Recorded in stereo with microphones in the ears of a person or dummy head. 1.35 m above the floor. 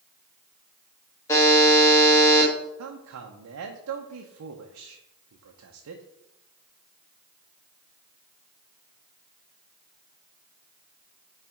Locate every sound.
1.3 s a buzzer: 20° left (ahead or behind), 1.5 m
2.8 s a man speaking: 80° right, 0.8 m